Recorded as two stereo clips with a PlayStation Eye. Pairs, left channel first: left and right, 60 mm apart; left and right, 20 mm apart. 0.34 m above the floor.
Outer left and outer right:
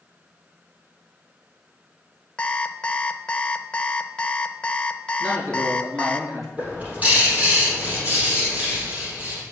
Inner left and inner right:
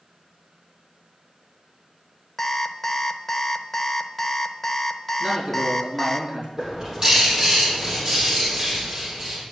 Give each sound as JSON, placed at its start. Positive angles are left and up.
{"t": 2.4, "sound": "an alarm clock", "side_deg": 20, "distance_m": 0.6}
{"t": 5.2, "sound": "a man speaking", "side_deg": -60, "distance_m": 5.0}
{"t": 6.6, "sound": "a bird", "side_deg": -25, "distance_m": 4.5}